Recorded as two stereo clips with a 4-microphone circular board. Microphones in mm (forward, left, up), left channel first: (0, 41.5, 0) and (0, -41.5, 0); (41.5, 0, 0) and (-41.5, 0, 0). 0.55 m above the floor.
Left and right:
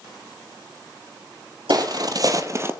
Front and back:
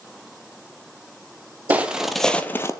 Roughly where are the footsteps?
Right.